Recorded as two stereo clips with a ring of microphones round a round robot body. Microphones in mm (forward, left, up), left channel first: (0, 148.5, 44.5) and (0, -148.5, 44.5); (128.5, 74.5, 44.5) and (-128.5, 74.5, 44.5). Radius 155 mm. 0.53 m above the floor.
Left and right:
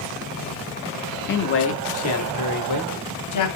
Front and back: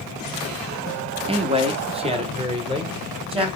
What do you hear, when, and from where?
1.3 s a man speaking: 120° left, 0.8 m; by 3.5 s 110° left, 1.8 m